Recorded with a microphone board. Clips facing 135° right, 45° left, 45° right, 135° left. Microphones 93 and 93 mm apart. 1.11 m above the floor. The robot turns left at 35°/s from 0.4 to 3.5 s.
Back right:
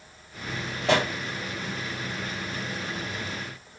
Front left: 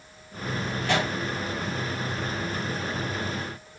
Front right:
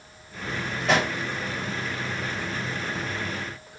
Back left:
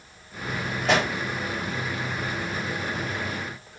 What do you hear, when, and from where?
0.8 s a pop: 135° right, 2.5 m; by 1.1 s 145° right, 2.5 m